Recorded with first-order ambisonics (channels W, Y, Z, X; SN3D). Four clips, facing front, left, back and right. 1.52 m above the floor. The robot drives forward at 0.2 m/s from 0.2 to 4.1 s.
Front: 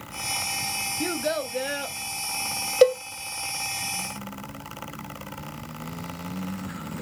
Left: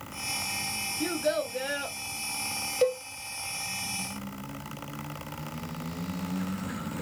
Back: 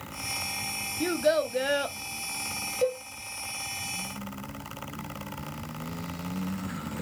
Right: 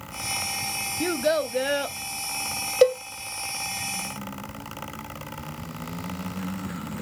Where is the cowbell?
35° right, 0.6 m.